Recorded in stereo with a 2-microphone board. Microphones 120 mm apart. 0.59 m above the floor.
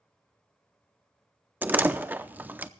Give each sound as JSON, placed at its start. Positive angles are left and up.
{"t": 1.6, "sound": "a door slam", "side_deg": -15, "distance_m": 0.6}